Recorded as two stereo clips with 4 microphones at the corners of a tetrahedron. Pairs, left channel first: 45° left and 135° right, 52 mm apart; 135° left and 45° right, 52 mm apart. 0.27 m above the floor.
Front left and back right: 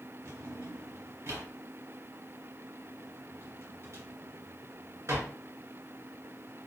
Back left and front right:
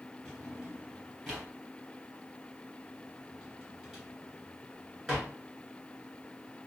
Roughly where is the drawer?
Behind right.